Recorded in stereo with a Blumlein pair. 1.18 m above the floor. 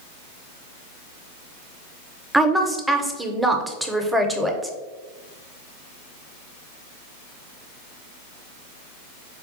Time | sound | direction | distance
2.3 | a woman speaking | 5° right | 0.6 m